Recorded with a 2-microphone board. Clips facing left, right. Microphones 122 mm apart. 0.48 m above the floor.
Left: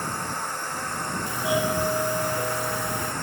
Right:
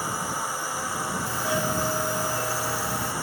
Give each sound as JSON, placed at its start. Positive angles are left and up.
{"t": 0.0, "sound": "a drone", "side_deg": -5}
{"t": 1.3, "sound": "a doorbell", "side_deg": 15}